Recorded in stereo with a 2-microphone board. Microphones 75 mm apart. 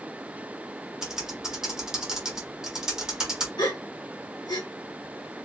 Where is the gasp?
65° left (ahead or behind), 1.0 m.